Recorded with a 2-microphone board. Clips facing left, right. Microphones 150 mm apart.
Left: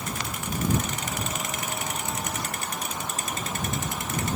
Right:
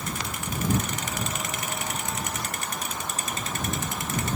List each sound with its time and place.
Only background noise.